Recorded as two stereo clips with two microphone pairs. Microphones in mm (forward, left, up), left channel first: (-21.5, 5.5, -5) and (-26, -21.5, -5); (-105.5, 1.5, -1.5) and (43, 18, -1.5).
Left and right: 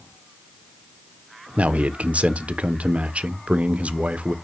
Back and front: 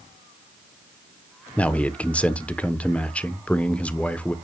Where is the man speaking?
95° right, 0.8 m.